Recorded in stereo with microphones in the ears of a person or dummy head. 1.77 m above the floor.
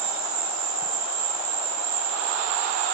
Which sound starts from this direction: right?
An insect, at 0.0 s.